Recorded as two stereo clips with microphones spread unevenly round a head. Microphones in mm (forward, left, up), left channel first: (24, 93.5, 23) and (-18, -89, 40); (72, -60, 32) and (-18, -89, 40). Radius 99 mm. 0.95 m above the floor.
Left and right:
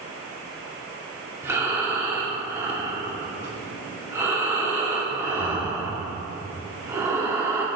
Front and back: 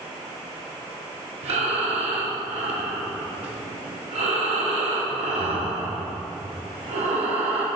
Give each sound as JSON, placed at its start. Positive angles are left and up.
{"t": 1.4, "sound": "breathing", "azimuth_deg": 180, "distance_m": 0.9}